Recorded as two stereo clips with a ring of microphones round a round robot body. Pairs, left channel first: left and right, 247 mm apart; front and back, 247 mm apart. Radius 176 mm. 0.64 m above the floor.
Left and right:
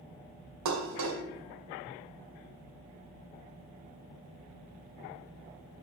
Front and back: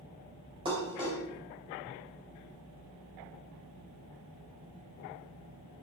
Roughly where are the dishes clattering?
Right.